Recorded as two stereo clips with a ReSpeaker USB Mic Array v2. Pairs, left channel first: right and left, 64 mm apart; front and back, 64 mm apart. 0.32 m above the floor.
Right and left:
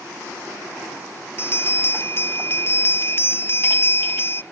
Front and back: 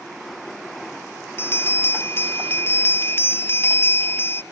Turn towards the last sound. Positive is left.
turn(degrees=-45)